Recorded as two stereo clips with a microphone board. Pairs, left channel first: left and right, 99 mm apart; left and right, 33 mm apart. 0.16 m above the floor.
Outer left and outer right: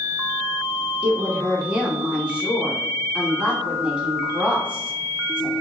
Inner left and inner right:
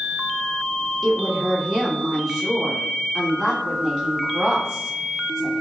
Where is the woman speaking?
10° right (ahead or behind), 1.1 m.